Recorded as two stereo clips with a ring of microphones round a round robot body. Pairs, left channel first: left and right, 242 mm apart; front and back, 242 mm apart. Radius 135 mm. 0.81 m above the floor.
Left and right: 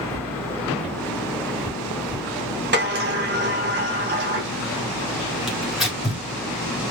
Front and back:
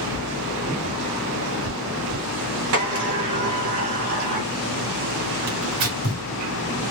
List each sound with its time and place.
0.1 s footsteps: 140° right, 3 m; by 2.3 s 170° right, 3 m
2.7 s a sliding door: 135° right, 1.7 m
5.5 s tearing paper: straight behind, 2.5 m